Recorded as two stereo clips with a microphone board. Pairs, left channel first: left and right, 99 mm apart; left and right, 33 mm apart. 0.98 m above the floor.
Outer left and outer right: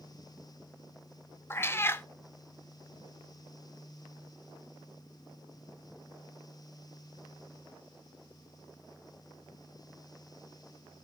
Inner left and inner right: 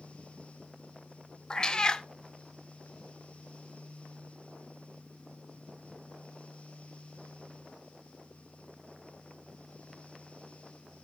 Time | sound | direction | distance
1.5 | a cat meowing | 25° left (ahead or behind) | 0.5 m